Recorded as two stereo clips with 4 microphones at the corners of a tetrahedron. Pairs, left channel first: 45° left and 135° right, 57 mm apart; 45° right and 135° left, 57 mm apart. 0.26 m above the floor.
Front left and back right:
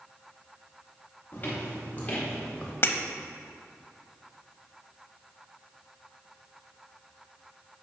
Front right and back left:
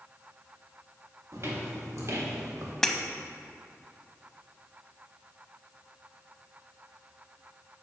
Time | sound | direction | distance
1.3 | footsteps | 100° left | 3.5 m
2.8 | breaking glass | 35° left | 0.7 m